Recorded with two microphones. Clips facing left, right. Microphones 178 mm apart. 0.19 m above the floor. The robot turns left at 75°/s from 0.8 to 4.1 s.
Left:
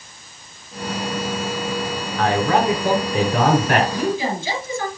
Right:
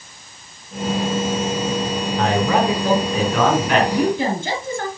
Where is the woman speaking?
65° right (ahead or behind), 3.5 m; by 4.9 s 55° right (ahead or behind), 3.5 m.